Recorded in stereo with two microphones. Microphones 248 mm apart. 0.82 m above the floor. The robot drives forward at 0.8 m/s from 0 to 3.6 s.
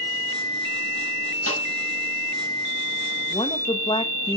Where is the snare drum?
80° left, 5.5 m.